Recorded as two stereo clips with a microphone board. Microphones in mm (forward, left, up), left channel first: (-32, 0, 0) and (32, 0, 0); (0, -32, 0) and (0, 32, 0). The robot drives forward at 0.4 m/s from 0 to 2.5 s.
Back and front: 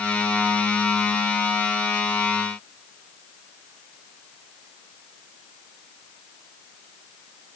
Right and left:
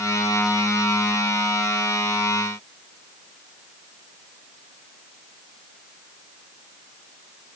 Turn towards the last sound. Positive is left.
No sound to turn to.